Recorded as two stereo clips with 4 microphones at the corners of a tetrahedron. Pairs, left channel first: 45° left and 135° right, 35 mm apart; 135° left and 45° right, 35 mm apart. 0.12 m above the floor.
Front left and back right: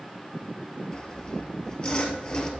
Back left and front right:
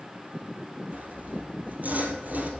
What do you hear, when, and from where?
0.9 s sawing: 15° right, 1.7 m